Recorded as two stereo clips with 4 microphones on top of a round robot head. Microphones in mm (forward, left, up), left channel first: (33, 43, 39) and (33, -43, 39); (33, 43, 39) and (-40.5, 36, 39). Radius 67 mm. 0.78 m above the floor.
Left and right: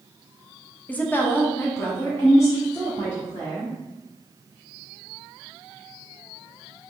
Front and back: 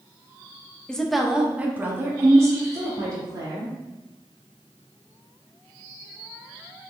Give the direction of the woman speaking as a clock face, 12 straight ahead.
10 o'clock.